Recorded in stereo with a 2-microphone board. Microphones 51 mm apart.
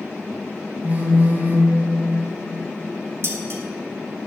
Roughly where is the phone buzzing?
Right.